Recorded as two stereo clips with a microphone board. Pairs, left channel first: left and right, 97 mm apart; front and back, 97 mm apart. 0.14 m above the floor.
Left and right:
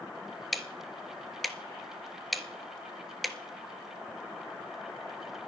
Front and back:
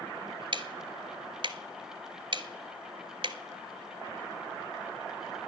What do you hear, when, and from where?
0.5 s ticking: straight behind, 0.8 m